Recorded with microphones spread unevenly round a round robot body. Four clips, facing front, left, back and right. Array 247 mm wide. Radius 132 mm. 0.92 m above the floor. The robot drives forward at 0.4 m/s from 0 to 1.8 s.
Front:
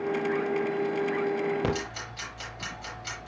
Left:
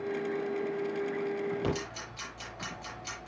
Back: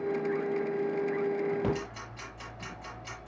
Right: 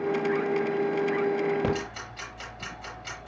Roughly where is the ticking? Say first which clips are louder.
Right 5 dB, front 2 dB; right.